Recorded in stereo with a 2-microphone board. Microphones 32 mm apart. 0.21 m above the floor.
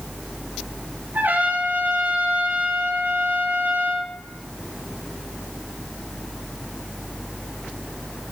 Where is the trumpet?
60° right (ahead or behind), 3.5 m.